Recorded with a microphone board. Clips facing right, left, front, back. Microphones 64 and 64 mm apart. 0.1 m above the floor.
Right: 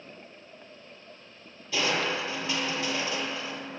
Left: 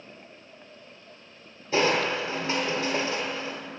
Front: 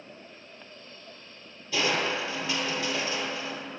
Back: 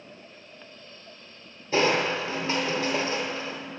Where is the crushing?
135° left, 1.0 m.